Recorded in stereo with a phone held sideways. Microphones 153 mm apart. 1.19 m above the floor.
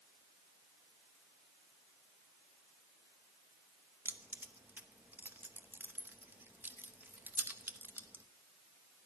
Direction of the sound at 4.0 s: 15° right (ahead or behind).